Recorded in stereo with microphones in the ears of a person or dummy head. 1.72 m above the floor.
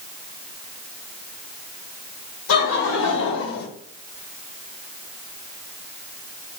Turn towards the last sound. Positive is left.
turn(degrees=60)  # may be behind; listen again after turning